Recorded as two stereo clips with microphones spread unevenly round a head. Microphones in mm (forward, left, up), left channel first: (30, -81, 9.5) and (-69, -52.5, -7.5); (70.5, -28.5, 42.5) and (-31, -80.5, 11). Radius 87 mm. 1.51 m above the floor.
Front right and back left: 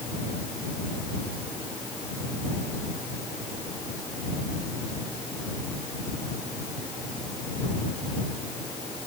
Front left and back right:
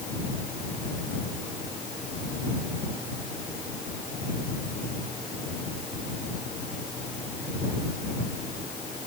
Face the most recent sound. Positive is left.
No sound to turn to.